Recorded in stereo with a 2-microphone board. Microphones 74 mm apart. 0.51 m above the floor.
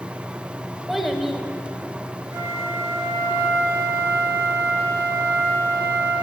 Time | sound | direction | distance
0.9 | a child speaking | centre (ahead or behind) | 1.4 m
2.3 | a flute | 40° right (ahead or behind) | 1.6 m